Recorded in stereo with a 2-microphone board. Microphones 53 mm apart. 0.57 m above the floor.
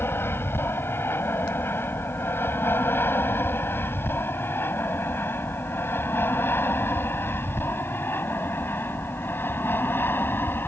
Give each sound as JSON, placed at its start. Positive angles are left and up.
{"t": 0.0, "sound": "an aircraft", "side_deg": 45}